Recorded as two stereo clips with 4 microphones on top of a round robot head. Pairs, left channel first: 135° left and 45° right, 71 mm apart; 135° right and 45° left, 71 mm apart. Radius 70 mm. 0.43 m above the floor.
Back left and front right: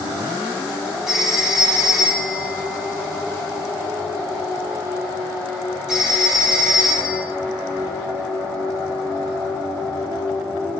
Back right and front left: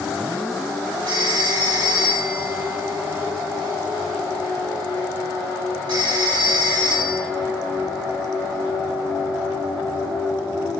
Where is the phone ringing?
40° left, 7.5 m.